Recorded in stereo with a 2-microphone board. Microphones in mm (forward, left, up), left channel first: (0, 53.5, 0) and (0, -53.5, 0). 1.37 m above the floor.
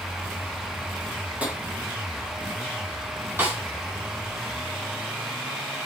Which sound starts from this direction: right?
A snare drum, at 3.4 s.